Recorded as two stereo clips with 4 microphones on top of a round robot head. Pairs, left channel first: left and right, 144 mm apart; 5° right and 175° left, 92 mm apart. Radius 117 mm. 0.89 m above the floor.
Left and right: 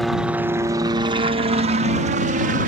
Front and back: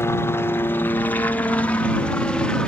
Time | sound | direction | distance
0.0 | a helicopter | straight ahead | ?